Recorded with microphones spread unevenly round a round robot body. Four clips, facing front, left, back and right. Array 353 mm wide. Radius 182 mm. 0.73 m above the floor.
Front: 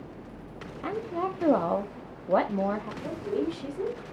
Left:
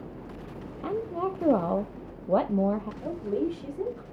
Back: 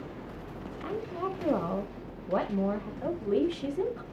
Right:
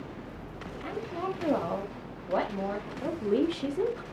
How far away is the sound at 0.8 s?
About 1.2 m.